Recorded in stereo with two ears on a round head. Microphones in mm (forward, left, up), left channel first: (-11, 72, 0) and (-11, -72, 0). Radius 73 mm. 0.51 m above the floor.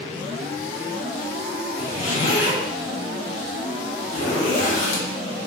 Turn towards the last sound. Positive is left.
turn(degrees=45)  # may be behind; listen again after turning